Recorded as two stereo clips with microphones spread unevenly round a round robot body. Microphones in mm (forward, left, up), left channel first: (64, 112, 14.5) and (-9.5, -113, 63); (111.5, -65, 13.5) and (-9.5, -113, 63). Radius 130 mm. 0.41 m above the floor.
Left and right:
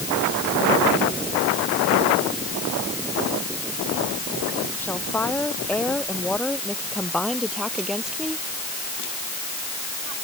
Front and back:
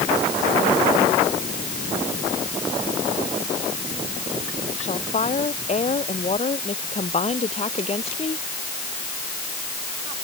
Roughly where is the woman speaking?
Ahead.